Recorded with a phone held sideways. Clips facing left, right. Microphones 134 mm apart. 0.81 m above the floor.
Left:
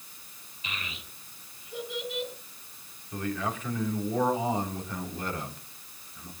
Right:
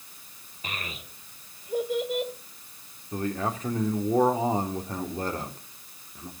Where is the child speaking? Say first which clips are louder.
Right 3 dB; 50° right (ahead or behind), 2.0 m.